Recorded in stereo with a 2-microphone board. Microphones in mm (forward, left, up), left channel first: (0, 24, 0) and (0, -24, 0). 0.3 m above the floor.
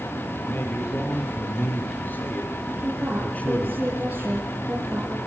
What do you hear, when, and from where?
0.4 s a man speaking: 55° left (ahead or behind), 7.5 m; by 3.7 s 30° left (ahead or behind), 3.5 m
2.7 s a woman speaking: 35° right (ahead or behind), 6 m